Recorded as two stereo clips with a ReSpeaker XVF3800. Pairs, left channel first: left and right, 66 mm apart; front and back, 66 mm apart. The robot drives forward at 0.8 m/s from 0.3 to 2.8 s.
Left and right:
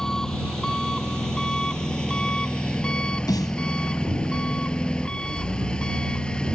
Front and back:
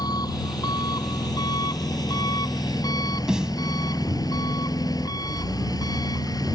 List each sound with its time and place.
0.0 s an engine running: 10° left; by 6.6 s 15° left
3.3 s a snare drum: 100° left